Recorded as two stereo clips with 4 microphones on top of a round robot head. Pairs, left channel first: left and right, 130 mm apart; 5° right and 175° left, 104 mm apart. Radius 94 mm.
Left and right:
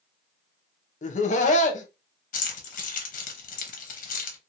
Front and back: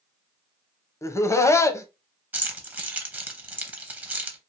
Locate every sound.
1.0 s laughter: 60° left, 0.7 m
2.3 s keys jangling: 105° left, 0.7 m